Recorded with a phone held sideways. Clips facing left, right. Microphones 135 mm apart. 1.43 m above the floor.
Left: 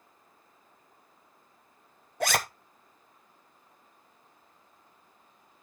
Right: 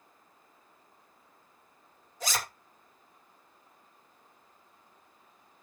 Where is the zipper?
60° left (ahead or behind), 0.8 m.